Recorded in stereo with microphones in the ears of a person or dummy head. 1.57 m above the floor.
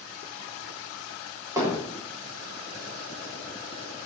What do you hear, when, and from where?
1.6 s hammering: 20° right (ahead or behind), 3 m